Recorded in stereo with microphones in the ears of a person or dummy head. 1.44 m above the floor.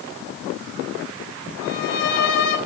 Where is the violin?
70° left (ahead or behind), 5.5 m.